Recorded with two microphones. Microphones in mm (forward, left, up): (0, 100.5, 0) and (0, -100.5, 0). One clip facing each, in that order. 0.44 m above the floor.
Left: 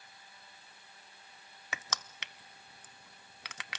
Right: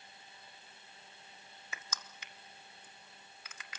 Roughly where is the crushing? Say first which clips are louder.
Left 7 dB; left.